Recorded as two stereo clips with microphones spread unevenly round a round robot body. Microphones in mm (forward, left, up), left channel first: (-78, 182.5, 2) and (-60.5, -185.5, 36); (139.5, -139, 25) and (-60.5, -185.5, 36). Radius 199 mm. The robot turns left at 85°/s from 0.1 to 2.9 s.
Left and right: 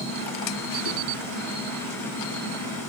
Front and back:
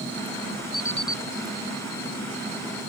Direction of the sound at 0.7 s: 30° right.